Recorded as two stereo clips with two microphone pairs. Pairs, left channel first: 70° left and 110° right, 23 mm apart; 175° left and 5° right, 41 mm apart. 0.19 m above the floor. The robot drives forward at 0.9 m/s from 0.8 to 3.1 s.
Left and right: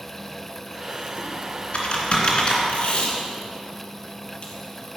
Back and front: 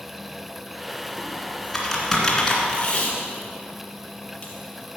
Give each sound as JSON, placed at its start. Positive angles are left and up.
{"t": 1.2, "sound": "typing on a keyboard", "azimuth_deg": 70, "distance_m": 2.5}
{"t": 2.7, "sound": "tape being pulled", "azimuth_deg": 105, "distance_m": 2.5}